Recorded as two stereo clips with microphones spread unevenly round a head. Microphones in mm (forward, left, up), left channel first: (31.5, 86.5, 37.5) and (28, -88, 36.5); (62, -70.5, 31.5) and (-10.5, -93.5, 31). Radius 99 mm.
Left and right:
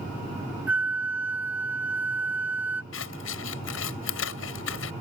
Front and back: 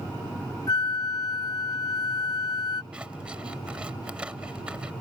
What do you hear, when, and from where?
0.7 s a flute: 10° right
2.9 s scissors: 115° left